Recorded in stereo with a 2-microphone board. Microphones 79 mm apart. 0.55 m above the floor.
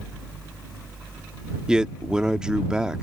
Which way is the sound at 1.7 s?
10° right (ahead or behind).